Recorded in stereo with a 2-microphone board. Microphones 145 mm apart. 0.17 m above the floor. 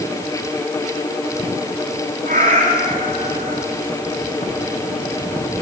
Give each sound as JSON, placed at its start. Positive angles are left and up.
{"t": 2.2, "sound": "a cat meowing", "side_deg": -70, "distance_m": 10.0}